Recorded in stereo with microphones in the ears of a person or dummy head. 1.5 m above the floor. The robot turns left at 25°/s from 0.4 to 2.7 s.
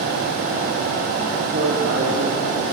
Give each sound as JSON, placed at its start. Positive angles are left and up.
{"t": 1.5, "sound": "a man speaking", "side_deg": -85, "distance_m": 1.8}